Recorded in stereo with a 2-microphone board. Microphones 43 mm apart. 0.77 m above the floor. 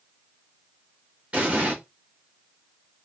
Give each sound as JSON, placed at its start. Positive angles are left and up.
{"t": 1.3, "sound": "an explosion", "side_deg": -25, "distance_m": 1.1}